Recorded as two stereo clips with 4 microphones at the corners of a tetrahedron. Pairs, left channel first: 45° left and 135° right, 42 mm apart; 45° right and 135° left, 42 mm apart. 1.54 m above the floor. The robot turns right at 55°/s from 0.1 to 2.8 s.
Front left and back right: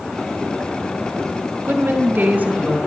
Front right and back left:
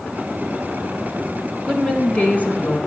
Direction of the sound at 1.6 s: 130° right.